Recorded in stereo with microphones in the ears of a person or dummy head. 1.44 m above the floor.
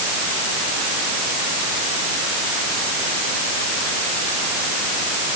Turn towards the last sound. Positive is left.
No sound to turn to.